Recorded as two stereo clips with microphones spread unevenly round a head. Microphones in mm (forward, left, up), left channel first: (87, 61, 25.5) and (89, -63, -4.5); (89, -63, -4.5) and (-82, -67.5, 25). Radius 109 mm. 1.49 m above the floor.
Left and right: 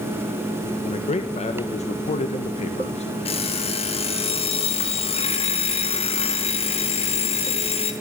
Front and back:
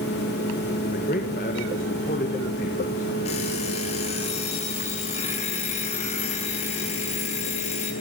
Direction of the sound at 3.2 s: 70° left.